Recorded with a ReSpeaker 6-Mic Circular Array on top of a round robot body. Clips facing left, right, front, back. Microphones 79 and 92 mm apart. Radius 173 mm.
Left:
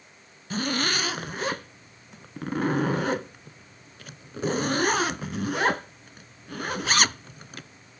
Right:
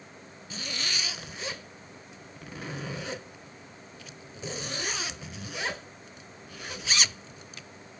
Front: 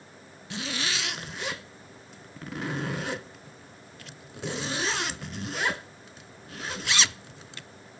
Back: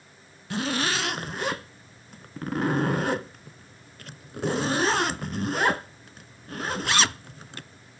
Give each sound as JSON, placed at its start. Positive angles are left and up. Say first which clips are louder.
{"t": 0.5, "sound": "a zipper", "louder": "left 10 dB, back 6 dB", "azimuth_deg": 135}